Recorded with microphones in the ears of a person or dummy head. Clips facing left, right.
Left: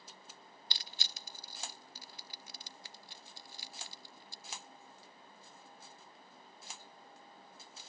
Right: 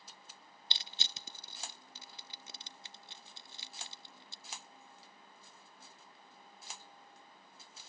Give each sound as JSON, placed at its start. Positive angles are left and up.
{"t": 0.7, "sound": "crushing", "side_deg": -20, "distance_m": 0.6}